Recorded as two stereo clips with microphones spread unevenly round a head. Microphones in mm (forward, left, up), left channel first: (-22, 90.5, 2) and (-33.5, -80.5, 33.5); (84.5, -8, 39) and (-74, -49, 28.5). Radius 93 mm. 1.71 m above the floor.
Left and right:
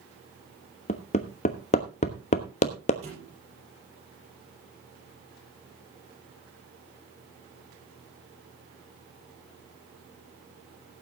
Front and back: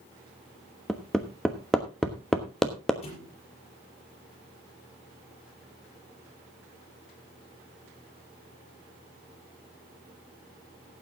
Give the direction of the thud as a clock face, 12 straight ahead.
1 o'clock.